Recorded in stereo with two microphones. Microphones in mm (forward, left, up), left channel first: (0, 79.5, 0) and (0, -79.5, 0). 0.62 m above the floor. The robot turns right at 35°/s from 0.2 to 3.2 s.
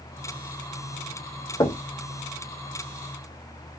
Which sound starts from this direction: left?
Knocking, at 1.6 s.